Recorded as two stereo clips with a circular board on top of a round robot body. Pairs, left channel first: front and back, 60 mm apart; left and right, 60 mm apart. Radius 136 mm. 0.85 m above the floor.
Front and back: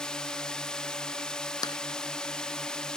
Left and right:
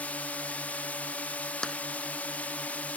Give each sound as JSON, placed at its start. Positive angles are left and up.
{"t": 0.0, "sound": "a drone", "azimuth_deg": 65}
{"t": 1.6, "sound": "tapping", "azimuth_deg": 10}